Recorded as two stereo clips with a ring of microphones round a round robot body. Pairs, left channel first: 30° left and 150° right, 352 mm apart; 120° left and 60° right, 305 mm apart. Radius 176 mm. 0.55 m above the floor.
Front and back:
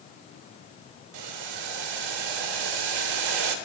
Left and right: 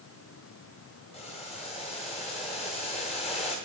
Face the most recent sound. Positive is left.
turn(degrees=-165)